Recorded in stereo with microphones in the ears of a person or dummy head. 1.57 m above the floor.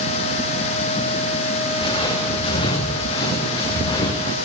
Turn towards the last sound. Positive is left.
turn(degrees=25)  # may be behind; listen again after turning